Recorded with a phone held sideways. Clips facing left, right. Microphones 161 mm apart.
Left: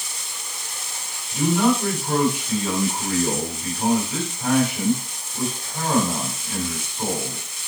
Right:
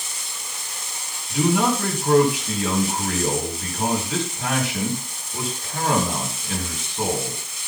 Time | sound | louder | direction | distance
1.3 | a man speaking | left 1 dB | 80° right | 4 m